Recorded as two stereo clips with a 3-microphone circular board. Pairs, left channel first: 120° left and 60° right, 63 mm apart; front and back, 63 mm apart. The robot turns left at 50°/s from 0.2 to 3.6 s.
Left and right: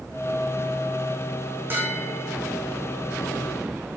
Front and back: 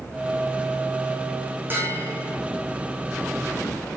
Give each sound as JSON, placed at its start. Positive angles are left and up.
{"t": 1.7, "sound": "a bell", "azimuth_deg": -120, "distance_m": 6.0}